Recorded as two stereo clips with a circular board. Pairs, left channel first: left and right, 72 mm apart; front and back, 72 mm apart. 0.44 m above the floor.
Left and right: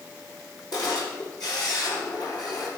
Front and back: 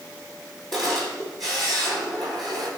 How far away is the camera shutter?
About 3.5 m.